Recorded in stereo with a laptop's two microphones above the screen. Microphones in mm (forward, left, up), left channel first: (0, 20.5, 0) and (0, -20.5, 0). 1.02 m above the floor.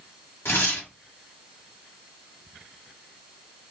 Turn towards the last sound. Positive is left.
turn(degrees=75)  # may be behind; listen again after turning